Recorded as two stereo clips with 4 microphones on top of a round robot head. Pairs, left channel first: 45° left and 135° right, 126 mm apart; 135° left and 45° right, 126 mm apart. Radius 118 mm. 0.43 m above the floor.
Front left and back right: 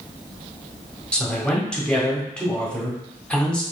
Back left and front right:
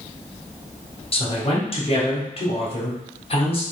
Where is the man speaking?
125° left, 1.7 m.